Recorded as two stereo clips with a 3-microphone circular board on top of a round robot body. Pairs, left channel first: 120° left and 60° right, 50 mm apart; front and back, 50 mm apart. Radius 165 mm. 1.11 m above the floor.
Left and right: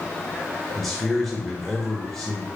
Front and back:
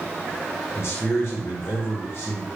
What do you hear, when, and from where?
0.8 s a man speaking: 35° left, 0.8 m